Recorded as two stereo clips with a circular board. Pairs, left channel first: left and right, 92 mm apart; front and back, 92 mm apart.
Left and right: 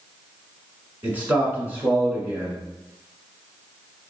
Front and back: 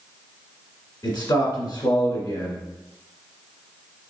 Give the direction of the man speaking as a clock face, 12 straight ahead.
1 o'clock.